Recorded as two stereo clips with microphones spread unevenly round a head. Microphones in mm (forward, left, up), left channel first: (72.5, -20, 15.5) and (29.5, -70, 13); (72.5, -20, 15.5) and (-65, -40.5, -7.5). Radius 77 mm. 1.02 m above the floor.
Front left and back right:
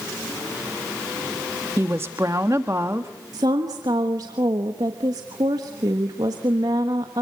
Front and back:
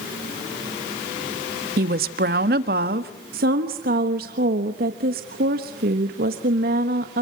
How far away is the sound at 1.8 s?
About 1.4 m.